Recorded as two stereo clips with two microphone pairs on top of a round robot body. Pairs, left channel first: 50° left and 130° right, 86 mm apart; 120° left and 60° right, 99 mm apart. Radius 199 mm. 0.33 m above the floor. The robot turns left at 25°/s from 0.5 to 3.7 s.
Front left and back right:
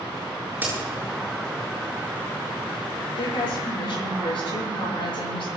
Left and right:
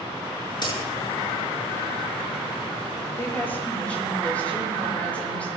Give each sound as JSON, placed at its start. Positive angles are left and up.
{"t": 0.6, "sound": "a crack", "azimuth_deg": 160, "distance_m": 8.0}
{"t": 3.2, "sound": "a woman speaking", "azimuth_deg": 60, "distance_m": 8.5}